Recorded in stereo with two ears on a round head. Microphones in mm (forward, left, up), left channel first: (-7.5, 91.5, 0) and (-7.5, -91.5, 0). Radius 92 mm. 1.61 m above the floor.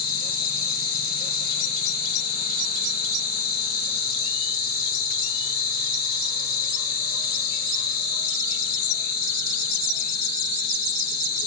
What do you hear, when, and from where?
0.0 s an insect: 50° left (ahead or behind), 2.5 m